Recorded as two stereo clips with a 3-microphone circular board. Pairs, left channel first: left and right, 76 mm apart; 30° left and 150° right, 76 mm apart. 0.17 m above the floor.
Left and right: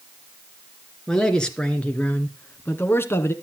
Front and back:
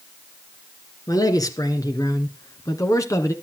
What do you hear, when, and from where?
1.1 s a man speaking: 10° left, 2.5 m; by 3.3 s 50° left, 1.8 m